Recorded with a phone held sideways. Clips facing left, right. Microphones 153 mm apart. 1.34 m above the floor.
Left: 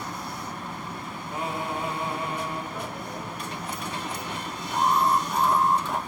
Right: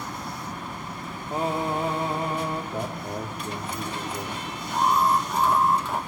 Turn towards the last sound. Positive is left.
turn(degrees=0)  # may be behind; listen again after turning